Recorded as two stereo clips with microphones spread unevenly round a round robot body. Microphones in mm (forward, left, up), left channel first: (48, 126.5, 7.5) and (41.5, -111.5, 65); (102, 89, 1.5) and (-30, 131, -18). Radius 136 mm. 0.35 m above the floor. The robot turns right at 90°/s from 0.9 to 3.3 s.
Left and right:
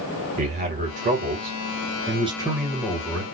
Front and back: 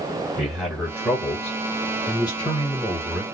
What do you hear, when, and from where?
0.4 s a man speaking: 140° right, 1.5 m; by 3.2 s 70° left, 1.5 m